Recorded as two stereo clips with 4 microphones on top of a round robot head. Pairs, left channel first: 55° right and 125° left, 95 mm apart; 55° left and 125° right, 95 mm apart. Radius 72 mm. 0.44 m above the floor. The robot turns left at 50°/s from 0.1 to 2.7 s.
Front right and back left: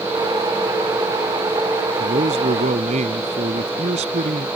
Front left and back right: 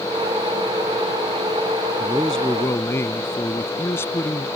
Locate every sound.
2.0 s a man speaking: 155° left; by 4.5 s 120° left